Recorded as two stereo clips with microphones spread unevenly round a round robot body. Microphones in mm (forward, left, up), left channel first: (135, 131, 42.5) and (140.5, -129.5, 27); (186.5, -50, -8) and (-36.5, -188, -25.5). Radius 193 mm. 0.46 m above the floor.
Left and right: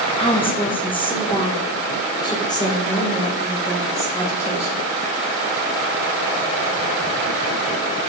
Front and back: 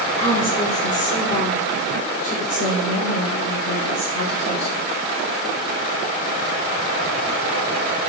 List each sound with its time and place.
0.2 s a woman speaking: 50° left, 1.1 m; by 4.8 s 10° left, 3 m